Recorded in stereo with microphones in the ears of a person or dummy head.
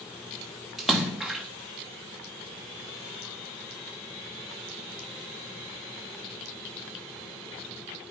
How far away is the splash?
About 1.0 m.